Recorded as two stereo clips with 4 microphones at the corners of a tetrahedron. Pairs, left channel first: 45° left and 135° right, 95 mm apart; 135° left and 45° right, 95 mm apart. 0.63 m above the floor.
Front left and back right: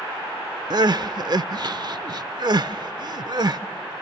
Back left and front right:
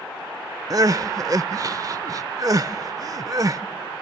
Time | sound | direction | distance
0.7 | crying | 95° right | 0.5 m